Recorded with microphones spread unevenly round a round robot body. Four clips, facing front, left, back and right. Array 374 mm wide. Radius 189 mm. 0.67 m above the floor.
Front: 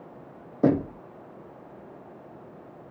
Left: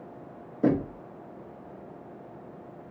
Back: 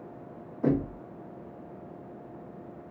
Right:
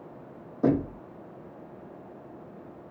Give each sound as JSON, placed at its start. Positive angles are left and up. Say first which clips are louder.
{"t": 0.6, "sound": "knocking", "louder": "even, front 4 dB", "azimuth_deg": 5, "distance_m": 0.9}